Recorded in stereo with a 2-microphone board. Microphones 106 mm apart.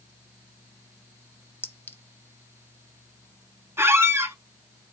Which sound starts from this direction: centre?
A clink, at 1.6 s.